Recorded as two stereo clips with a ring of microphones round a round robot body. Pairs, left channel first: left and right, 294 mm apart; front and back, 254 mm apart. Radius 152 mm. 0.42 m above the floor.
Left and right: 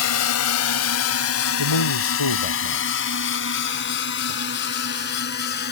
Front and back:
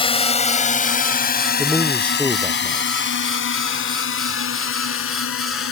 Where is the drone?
65° left; by 5.7 s 30° left.